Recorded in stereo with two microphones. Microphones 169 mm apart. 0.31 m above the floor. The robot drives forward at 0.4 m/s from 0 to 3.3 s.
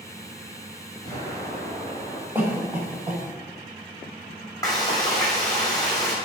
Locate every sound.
1.1 s an explosion: 25° left (ahead or behind), 2.5 m; by 2.2 s 20° left (ahead or behind), 2.5 m
2.4 s a cough: 10° right (ahead or behind), 1.1 m
4.6 s frying: 20° left (ahead or behind), 2.5 m